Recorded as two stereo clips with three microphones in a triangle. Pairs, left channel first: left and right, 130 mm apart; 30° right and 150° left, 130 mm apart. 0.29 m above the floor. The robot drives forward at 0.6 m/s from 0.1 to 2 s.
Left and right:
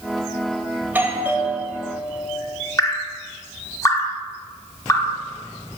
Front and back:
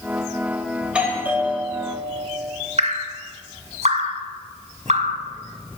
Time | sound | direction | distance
0.8 | a doorbell | 135° right | 1.3 m
2.8 | dripping | 150° left | 0.9 m